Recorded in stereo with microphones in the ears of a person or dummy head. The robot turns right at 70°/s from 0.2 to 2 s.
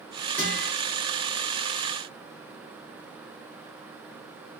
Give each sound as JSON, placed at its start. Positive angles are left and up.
{"t": 0.4, "sound": "a guitar", "side_deg": 10, "distance_m": 2.0}